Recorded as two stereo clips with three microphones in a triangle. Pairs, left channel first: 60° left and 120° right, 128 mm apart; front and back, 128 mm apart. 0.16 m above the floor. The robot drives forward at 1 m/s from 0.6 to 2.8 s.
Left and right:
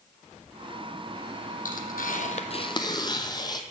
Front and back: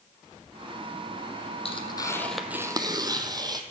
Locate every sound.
1.6 s tearing paper: 45° left, 1.1 m; by 3.6 s 120° left, 0.9 m